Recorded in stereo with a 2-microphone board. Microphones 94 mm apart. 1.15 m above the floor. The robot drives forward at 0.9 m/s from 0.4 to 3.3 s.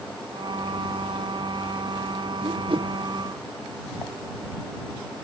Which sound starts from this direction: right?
A whoosh, at 2.4 s.